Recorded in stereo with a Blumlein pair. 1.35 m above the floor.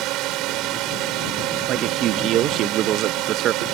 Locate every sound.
0.0 s a drone: 40° right
1.7 s a man speaking: 35° right